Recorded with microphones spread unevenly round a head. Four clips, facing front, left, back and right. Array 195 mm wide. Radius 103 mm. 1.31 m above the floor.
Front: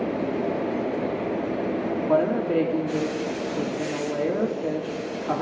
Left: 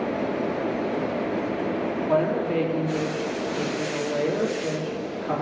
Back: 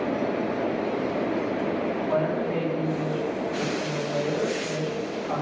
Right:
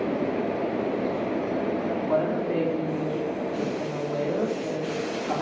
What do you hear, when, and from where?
2.1 s a woman speaking: 5° left, 3 m